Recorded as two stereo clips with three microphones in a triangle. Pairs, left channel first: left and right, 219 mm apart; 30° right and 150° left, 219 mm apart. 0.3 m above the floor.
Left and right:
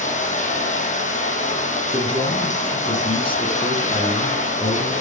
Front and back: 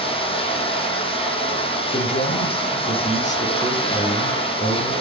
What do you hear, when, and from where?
0.0 s running water: 35° left, 4.5 m
1.9 s a man speaking: 25° left, 5.5 m